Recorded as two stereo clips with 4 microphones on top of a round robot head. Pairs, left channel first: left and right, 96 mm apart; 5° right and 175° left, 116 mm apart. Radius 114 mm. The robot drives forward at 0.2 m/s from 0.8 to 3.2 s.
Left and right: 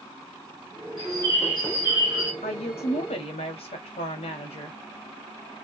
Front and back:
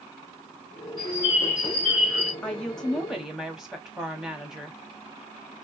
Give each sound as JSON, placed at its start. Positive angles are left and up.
{"t": 1.0, "sound": "a bird", "azimuth_deg": -55, "distance_m": 1.1}
{"t": 2.4, "sound": "a woman speaking", "azimuth_deg": 75, "distance_m": 0.8}